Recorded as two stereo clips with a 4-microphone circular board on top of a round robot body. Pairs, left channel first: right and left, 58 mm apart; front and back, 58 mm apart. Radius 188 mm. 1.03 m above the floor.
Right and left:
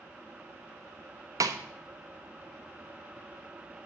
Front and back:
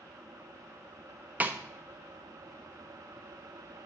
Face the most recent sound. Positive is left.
turn(degrees=115)